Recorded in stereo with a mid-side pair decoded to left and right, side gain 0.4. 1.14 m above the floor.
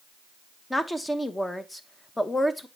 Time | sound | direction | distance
0.7 | a woman speaking | 15° left | 1.0 m